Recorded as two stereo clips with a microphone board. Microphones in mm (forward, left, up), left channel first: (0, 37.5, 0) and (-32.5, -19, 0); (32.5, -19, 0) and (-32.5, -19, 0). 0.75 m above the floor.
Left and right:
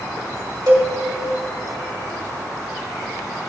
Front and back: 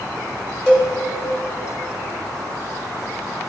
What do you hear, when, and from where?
0.7 s a cowbell: 75° right, 2.5 m